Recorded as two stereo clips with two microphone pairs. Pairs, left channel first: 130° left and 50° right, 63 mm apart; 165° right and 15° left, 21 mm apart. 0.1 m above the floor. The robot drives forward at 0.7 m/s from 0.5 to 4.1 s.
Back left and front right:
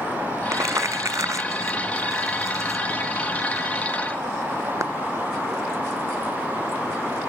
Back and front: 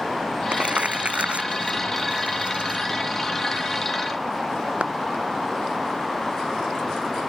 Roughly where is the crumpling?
Ahead.